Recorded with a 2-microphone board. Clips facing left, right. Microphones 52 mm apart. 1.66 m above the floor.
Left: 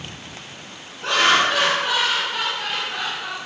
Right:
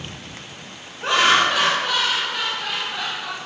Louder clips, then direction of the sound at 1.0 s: Right 1 dB; 15° right (ahead or behind).